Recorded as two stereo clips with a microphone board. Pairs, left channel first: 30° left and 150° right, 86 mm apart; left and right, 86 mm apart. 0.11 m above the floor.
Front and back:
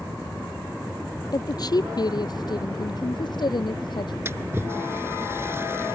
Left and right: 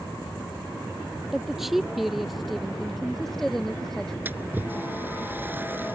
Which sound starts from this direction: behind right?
A splash, at 4.2 s.